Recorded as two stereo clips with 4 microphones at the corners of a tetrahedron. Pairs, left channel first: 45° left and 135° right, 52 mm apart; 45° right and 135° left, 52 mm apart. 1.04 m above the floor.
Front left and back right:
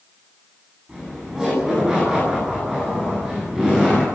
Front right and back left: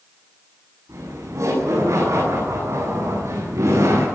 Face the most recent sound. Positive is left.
turn(degrees=145)